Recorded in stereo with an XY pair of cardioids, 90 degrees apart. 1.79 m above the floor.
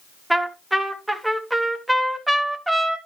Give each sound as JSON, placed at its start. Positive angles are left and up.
{"t": 0.3, "sound": "a trumpet", "azimuth_deg": -5, "distance_m": 2.5}